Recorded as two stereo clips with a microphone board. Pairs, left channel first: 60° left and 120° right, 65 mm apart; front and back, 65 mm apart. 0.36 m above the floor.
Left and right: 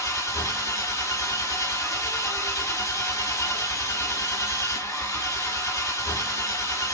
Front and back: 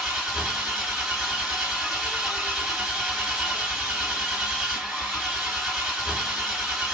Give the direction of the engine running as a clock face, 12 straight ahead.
9 o'clock.